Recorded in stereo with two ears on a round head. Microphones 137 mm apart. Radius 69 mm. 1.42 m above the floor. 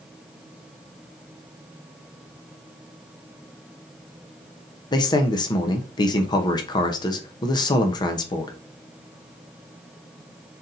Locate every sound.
4.9 s a man speaking: 30° left (ahead or behind), 0.7 m